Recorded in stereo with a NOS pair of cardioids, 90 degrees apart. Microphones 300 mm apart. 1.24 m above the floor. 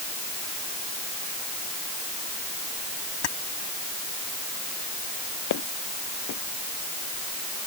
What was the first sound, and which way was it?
Keys jangling, 60° left.